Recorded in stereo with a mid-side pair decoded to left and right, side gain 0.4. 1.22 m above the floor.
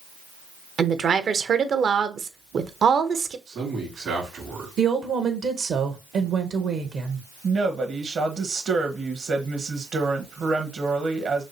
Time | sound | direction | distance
0.8 | a woman speaking | 55° right | 0.8 m
3.5 | a man speaking | 65° right | 3 m
4.8 | a woman speaking | 60° right | 1.1 m
7.4 | a woman speaking | 55° right | 1.4 m